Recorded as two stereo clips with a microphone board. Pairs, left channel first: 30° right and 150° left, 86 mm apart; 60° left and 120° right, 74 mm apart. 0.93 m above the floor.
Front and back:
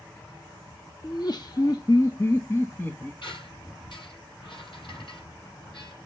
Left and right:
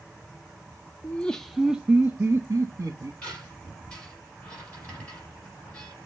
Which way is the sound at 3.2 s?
15° right.